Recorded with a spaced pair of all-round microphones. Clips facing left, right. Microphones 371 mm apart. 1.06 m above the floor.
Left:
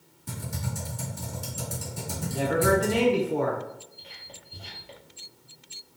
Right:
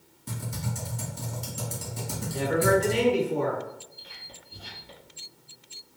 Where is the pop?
No pop in this recording.